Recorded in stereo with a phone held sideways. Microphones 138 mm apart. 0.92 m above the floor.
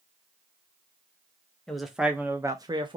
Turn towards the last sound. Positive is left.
turn(degrees=-35)  # may be behind; listen again after turning